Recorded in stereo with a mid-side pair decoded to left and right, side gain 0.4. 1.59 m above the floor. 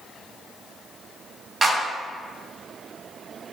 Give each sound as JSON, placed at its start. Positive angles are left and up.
{"t": 1.6, "sound": "a clap", "azimuth_deg": -40, "distance_m": 2.0}